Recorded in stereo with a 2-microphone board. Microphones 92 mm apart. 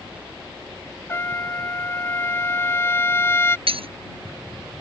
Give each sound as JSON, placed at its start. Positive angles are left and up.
{"t": 1.1, "sound": "a trumpet", "side_deg": 30}
{"t": 3.7, "sound": "breaking glass", "side_deg": -80}